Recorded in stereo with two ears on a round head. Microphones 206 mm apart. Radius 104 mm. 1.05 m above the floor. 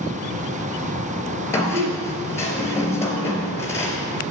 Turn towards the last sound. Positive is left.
turn(degrees=10)  # may be behind; listen again after turning